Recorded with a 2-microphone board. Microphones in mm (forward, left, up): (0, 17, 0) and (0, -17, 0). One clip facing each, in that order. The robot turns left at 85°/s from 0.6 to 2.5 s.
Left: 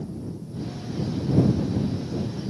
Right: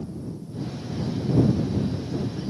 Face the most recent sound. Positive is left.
No sound to turn to.